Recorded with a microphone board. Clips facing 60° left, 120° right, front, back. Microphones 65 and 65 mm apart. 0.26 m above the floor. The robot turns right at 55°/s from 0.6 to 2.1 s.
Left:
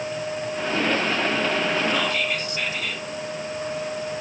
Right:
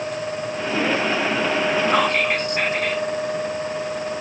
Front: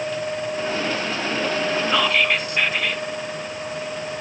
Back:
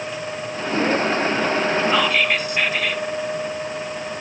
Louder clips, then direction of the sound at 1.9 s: Right 5 dB, back 1 dB; 110° right.